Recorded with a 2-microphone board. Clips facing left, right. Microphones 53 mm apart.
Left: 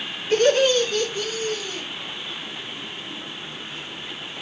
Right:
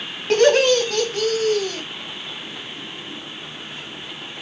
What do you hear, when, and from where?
0.3 s laughter: 75° right (ahead or behind), 3.5 m; by 1.8 s 70° right (ahead or behind), 2 m